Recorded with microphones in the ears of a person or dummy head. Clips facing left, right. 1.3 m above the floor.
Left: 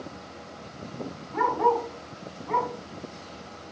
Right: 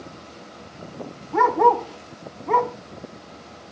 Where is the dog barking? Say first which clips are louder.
Right 6 dB; 65° right (ahead or behind), 1.4 m.